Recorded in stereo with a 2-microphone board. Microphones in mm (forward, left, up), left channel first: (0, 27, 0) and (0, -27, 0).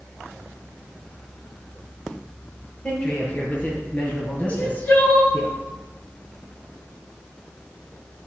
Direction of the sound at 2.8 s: 25° left (ahead or behind).